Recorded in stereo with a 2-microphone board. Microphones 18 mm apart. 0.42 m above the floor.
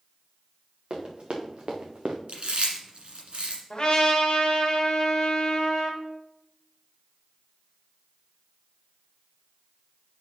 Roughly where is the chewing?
Right.